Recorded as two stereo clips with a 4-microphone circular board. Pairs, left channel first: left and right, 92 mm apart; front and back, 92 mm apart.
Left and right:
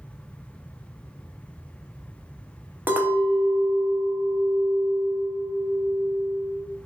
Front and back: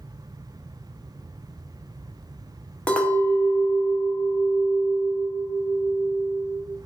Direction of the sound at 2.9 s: 60° right.